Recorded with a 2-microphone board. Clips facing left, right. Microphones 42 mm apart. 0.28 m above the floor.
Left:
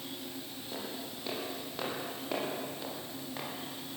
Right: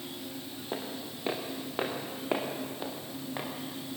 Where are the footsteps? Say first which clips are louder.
Right 3 dB; 35° right (ahead or behind), 5.5 m; by 3.5 s 15° right (ahead or behind), 5.5 m.